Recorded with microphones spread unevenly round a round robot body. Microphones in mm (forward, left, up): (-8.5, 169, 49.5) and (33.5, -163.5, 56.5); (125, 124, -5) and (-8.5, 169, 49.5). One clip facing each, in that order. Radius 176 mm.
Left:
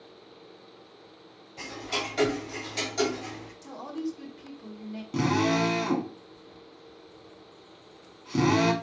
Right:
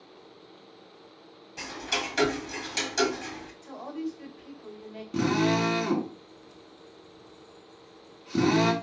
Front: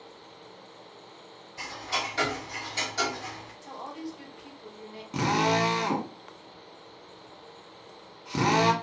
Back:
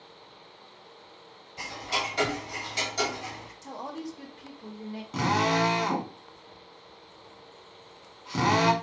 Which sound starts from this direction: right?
Ticking, at 1.6 s.